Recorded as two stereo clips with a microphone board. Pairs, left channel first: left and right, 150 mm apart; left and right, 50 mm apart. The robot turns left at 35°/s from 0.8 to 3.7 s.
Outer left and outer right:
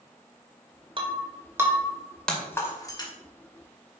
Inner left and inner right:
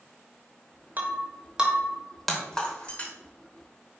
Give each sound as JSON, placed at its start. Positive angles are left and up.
{"t": 1.0, "sound": "breaking glass", "side_deg": -35, "distance_m": 2.5}